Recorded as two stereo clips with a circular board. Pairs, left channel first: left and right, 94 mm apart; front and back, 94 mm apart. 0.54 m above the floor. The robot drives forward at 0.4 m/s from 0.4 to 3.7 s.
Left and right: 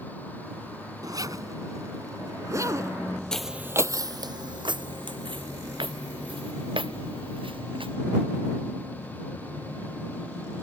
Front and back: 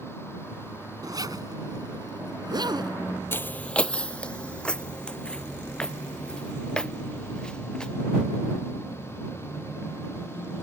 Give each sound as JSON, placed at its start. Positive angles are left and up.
{"t": 1.0, "sound": "a zipper", "azimuth_deg": -135}
{"t": 3.3, "sound": "footsteps", "azimuth_deg": 15}